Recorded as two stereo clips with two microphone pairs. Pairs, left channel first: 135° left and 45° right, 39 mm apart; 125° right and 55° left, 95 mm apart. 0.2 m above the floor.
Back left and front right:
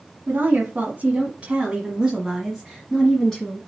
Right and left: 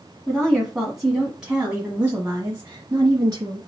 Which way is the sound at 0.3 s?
40° right.